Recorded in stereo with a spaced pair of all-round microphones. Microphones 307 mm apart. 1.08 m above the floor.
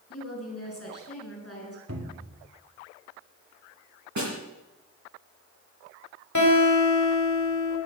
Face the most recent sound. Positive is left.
turn(degrees=85)